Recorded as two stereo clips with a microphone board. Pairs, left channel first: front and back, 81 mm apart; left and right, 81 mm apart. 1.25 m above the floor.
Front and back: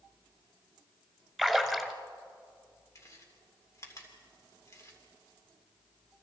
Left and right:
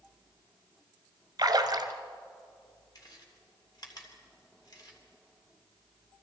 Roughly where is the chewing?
Ahead left.